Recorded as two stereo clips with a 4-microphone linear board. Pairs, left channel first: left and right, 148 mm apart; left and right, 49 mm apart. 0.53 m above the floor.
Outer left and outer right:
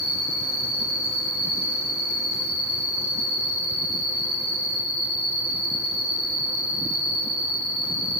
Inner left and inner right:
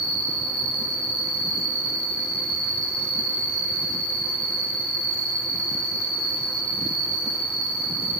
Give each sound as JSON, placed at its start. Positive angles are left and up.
{"t": 0.0, "sound": "an insect", "side_deg": 0, "distance_m": 6.5}